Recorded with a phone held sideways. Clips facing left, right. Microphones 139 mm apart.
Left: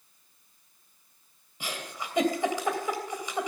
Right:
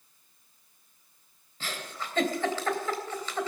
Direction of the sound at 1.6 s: 15° left (ahead or behind).